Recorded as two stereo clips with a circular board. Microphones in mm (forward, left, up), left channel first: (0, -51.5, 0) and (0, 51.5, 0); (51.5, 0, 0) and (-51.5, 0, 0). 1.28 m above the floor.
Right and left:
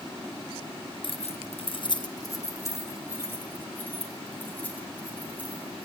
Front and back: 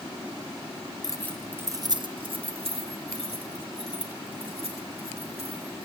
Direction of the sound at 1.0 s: 50° right.